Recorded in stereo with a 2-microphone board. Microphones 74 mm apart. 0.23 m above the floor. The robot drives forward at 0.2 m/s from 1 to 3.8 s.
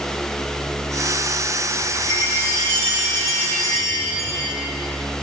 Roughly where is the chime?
Left.